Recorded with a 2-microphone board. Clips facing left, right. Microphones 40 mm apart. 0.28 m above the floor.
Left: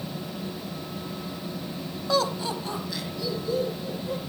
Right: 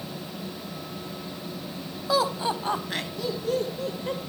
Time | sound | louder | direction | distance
2.1 | laughter | right 1 dB | 5° right (ahead or behind) | 1.4 m